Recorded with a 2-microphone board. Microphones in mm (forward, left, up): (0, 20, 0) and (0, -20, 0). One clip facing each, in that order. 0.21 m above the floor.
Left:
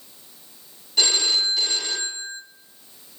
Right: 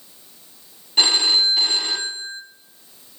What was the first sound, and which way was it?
A phone ringing, 35° right (ahead or behind).